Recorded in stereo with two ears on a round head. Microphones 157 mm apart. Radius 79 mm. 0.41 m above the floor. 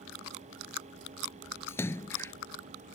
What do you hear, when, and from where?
1.7 s a splash: 15° left (ahead or behind)